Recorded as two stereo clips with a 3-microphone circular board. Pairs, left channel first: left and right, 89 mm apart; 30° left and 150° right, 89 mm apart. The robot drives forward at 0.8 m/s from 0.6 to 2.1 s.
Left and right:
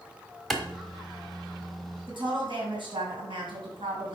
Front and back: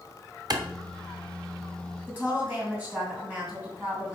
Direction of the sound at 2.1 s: 80° right.